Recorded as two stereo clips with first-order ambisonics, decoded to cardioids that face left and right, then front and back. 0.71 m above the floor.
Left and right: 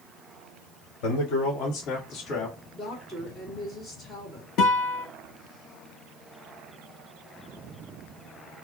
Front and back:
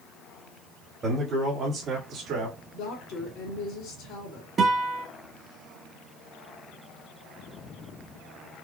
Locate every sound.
1.0 s a man speaking: 110° left, 1.6 m; by 2.6 s 145° left, 1.7 m
2.7 s a woman speaking: 10° left, 1.8 m
4.6 s a guitar: 115° left, 0.9 m